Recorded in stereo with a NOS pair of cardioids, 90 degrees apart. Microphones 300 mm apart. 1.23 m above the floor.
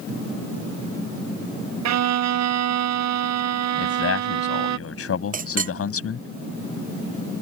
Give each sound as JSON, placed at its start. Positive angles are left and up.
{"t": 1.9, "sound": "a violin", "azimuth_deg": -65}
{"t": 3.8, "sound": "a man speaking", "azimuth_deg": 50}
{"t": 5.3, "sound": "a clink", "azimuth_deg": -30}